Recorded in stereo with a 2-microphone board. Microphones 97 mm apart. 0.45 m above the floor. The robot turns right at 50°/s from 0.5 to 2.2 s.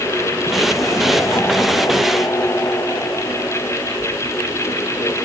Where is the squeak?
I don't hear a squeak.